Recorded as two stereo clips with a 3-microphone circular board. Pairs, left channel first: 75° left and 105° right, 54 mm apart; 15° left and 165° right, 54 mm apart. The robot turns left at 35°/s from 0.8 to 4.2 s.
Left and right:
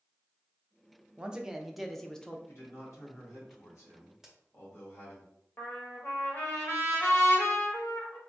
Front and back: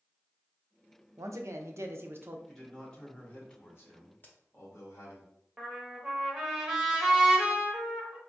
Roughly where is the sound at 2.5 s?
Left.